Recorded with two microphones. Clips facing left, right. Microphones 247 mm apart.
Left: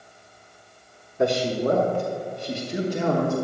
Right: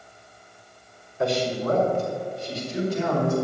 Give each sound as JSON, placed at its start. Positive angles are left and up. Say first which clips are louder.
{"t": 1.2, "sound": "a man speaking", "louder": "left 3 dB", "side_deg": 55, "distance_m": 1.4}